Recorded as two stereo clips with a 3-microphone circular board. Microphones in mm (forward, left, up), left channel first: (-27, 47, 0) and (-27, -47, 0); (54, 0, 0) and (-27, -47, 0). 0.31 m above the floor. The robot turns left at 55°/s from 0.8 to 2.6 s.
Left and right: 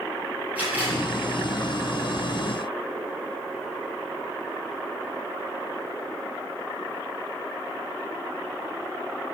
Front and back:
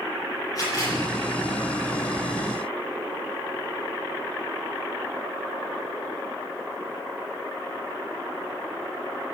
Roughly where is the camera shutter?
Ahead.